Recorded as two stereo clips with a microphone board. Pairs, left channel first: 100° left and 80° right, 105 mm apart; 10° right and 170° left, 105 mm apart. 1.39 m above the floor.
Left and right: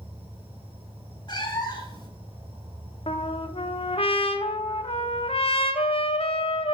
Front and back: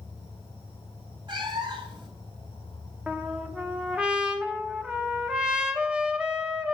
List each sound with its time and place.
0.0 s an insect: 50° right, 3.5 m
1.3 s a cat meowing: 140° left, 1.7 m
3.1 s a trumpet: 90° left, 0.7 m